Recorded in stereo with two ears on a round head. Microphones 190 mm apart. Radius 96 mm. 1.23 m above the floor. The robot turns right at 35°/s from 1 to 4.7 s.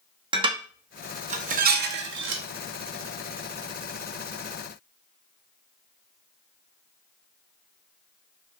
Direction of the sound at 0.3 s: 25° right (ahead or behind).